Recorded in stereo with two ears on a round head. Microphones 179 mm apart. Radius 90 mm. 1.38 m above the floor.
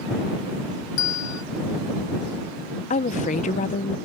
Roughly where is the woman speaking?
Left.